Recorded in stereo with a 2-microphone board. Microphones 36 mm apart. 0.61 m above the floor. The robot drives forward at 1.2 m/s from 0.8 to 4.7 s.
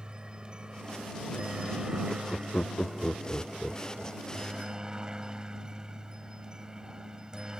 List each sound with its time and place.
0.0 s a helicopter: 25° right (ahead or behind); by 7.6 s 20° right (ahead or behind)
2.1 s laughter: 30° left (ahead or behind); by 4.6 s 10° left (ahead or behind)